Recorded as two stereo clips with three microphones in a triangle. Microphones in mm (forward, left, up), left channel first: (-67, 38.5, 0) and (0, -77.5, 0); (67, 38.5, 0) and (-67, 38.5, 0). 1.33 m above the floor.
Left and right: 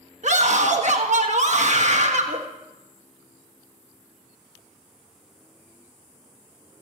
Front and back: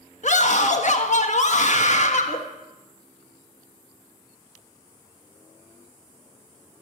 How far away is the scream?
About 1.4 m.